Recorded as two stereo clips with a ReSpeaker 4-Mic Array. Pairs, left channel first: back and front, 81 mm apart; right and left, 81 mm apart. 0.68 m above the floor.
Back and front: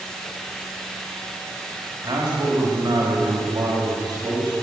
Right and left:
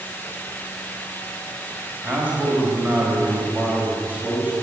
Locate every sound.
2.0 s a man speaking: 25° left, 3.5 m